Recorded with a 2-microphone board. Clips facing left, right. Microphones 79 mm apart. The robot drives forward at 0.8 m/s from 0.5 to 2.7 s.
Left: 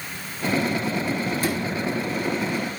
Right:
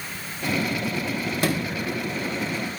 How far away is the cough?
No cough in this recording.